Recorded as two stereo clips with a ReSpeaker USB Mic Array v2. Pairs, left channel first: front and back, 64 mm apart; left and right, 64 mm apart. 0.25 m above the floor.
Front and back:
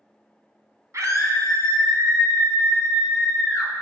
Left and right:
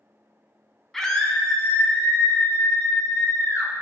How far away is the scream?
About 1.9 m.